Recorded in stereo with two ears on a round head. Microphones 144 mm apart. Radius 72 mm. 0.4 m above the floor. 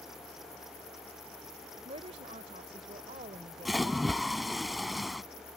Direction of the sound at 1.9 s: 40° right (ahead or behind).